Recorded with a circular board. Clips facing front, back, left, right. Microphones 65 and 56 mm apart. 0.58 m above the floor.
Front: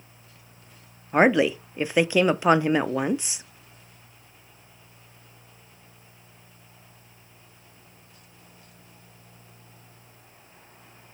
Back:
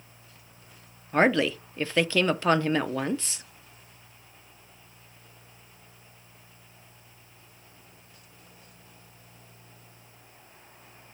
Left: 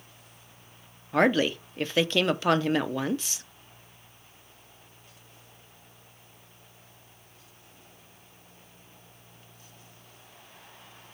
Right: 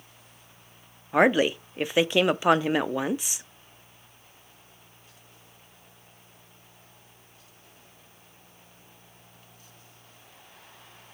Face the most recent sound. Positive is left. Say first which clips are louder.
# front 3 dB, right 2 dB
turn(degrees=-45)